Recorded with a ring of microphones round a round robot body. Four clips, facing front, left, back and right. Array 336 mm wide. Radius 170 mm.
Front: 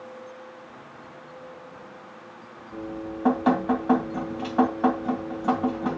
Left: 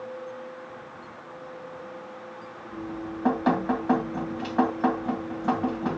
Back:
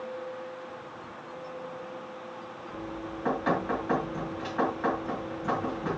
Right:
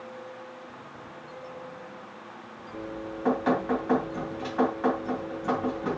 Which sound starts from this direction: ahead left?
Dripping, at 2.7 s.